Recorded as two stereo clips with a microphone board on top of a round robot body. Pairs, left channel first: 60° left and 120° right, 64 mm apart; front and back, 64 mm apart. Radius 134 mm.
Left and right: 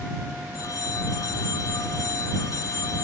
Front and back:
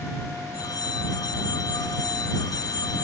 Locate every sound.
0.5 s a phone ringing: 25° left